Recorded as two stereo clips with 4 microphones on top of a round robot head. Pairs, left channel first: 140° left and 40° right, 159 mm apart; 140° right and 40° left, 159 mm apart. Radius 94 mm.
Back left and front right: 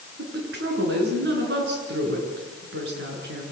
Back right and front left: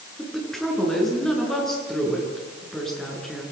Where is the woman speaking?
50° right, 9.5 m.